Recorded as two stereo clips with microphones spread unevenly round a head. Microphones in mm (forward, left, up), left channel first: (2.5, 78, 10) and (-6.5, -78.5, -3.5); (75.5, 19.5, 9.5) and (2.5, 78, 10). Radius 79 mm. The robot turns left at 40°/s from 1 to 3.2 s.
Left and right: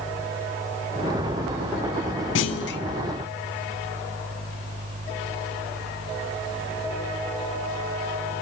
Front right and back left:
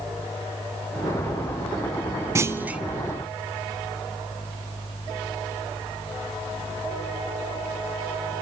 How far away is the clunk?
About 0.6 m.